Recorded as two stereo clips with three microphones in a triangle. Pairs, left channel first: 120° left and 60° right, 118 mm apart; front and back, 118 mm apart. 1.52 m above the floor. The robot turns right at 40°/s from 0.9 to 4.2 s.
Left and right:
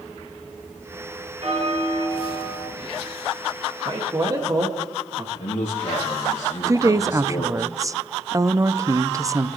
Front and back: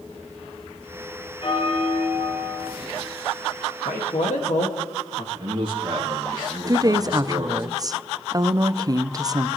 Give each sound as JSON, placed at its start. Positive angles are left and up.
{"t": 1.4, "sound": "a bell", "azimuth_deg": -40, "distance_m": 6.0}
{"t": 3.9, "sound": "a man speaking", "azimuth_deg": -15, "distance_m": 2.0}
{"t": 5.3, "sound": "a man speaking", "azimuth_deg": 130, "distance_m": 2.5}
{"t": 6.7, "sound": "a woman speaking", "azimuth_deg": -125, "distance_m": 0.6}